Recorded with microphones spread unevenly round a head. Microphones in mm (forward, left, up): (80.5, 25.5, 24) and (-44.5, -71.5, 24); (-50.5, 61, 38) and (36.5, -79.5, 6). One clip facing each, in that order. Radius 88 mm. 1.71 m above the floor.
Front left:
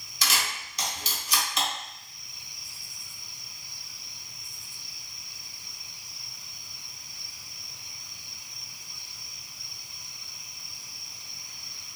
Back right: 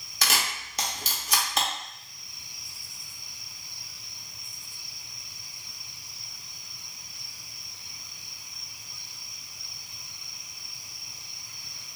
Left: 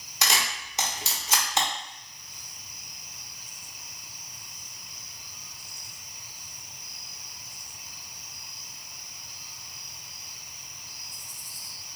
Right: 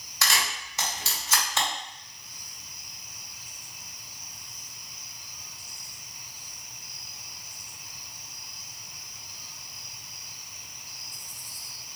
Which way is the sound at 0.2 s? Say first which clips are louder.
Back right 1 dB, left 1 dB; straight behind.